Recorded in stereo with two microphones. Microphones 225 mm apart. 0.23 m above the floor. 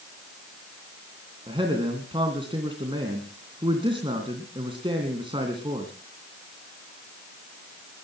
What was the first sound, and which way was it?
A man speaking, 20° right (ahead or behind).